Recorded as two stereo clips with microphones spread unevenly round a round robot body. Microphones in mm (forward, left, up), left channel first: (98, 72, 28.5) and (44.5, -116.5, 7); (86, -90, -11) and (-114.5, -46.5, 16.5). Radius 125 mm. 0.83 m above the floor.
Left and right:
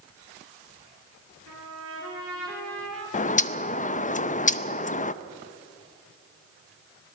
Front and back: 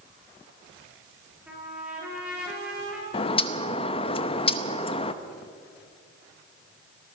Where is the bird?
35° left, 0.7 m.